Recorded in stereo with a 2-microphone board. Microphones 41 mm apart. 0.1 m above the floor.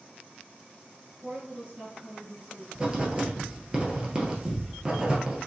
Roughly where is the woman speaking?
Right.